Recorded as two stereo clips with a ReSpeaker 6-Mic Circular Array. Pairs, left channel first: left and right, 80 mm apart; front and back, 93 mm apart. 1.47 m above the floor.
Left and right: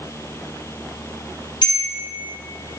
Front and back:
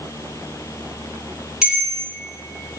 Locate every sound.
1.6 s a bell: 100° left, 1.9 m